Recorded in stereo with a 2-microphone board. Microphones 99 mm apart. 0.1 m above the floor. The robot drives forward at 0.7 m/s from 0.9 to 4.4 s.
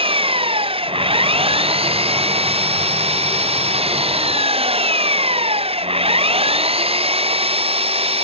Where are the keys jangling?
No keys jangling in this recording.